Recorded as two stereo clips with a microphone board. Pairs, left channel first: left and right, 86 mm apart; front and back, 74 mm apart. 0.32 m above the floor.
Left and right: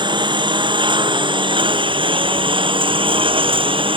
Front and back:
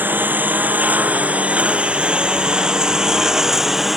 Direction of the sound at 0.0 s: 115° right.